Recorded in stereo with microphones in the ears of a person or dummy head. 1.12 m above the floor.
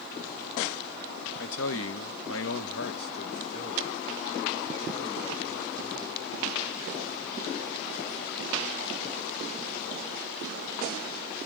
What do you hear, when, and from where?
1.4 s a man speaking: 65° left (ahead or behind), 0.8 m; by 6.2 s 5° left (ahead or behind), 2 m